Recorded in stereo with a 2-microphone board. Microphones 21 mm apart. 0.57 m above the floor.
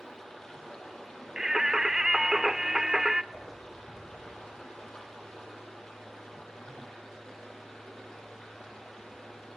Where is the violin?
I don't hear a violin.